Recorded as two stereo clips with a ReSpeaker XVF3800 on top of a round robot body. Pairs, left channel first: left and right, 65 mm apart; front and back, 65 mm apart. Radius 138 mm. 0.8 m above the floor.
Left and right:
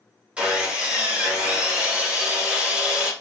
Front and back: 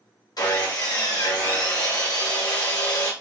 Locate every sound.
0.4 s sawing: 15° right, 1.3 m